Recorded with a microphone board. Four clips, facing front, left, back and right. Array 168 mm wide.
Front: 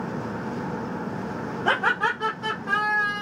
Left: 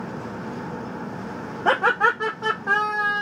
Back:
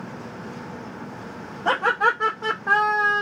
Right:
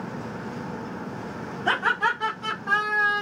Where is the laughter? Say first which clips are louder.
Left 5 dB, back 3 dB; 90° left, 0.9 m; by 3.2 s 165° right, 0.6 m.